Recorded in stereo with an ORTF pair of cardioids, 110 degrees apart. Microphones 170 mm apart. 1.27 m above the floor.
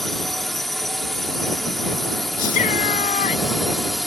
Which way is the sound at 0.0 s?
Straight ahead.